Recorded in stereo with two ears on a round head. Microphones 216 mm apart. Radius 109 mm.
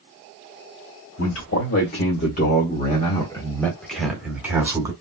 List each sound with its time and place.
1.2 s a man speaking: 50° left (ahead or behind), 1.6 m; by 4.9 s 15° right (ahead or behind), 1.5 m